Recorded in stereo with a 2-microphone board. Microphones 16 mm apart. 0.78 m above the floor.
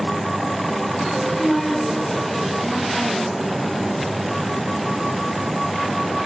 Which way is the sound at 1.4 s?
20° left (ahead or behind).